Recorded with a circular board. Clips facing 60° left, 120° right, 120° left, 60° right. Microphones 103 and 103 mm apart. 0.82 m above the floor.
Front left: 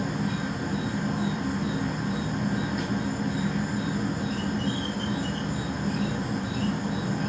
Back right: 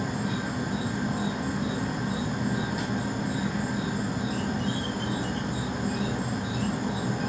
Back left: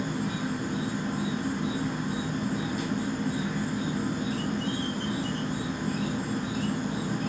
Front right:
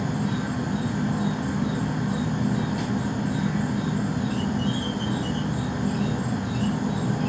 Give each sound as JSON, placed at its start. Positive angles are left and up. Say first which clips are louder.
{"t": 0.0, "sound": "an insect", "louder": "front left 1 dB, front right 3 dB", "azimuth_deg": -35, "distance_m": 2.0}